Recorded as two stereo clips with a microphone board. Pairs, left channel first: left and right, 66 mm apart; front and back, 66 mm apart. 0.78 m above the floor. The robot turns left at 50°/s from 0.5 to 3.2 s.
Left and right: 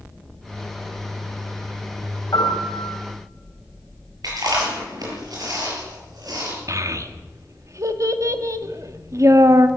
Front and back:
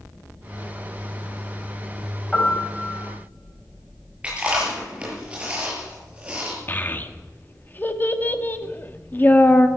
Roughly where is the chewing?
Right.